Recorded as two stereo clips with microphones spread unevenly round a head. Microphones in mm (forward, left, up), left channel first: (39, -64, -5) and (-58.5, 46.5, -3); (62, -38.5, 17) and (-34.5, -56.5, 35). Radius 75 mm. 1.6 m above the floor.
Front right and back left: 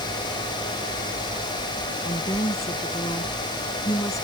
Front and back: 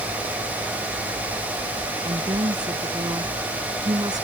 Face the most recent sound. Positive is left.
turn(degrees=-120)